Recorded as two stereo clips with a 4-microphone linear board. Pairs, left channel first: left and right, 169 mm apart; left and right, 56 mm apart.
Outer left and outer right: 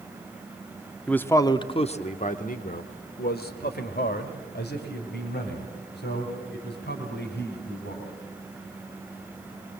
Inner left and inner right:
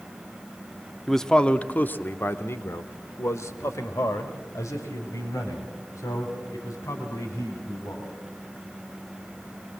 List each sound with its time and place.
1.1 s a man speaking: 5° left (ahead or behind), 0.8 m; by 8.1 s 80° left, 4.5 m